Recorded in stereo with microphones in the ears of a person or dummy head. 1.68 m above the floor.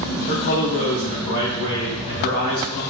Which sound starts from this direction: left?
A man speaking, at 0.3 s.